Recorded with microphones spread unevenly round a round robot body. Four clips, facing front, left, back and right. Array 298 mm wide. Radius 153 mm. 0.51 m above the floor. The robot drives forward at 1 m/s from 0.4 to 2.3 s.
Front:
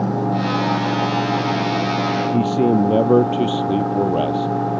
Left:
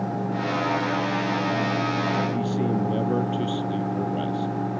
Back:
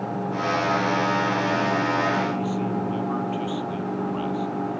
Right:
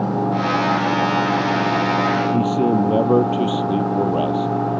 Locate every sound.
2.3 s a man speaking: 25° right